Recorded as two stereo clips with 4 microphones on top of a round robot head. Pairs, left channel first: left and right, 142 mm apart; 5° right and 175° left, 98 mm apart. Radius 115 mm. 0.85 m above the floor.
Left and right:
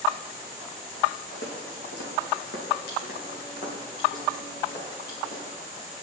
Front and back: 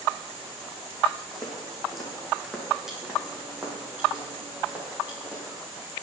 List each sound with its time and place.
1.3 s footsteps: 80° left, 2.5 m; by 5.5 s 105° left, 4 m